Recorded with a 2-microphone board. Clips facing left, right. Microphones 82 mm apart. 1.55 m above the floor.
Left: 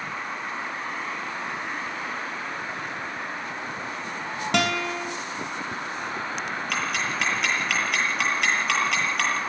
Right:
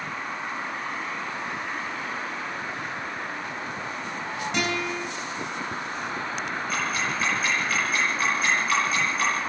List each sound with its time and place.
4.5 s a guitar: 70° left (ahead or behind), 3.5 m
6.7 s ticking: 75° left (ahead or behind), 8 m